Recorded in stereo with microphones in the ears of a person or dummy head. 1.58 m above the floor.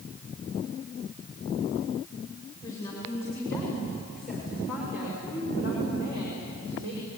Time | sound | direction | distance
2.6 | a woman speaking | 20° left (ahead or behind) | 7 m